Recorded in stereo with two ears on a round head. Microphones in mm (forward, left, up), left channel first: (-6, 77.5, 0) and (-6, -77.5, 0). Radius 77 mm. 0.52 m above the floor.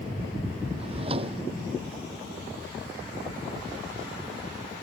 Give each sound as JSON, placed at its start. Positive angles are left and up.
{"t": 0.8, "sound": "a drawer", "side_deg": -35}